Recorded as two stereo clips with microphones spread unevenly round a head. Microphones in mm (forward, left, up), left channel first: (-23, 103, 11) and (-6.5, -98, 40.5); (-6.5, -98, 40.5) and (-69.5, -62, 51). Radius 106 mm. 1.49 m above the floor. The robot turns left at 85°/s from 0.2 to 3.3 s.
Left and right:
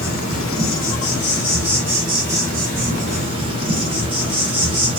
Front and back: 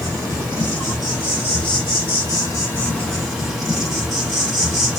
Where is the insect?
130° left, 2 m; by 5.0 s 130° right, 2 m.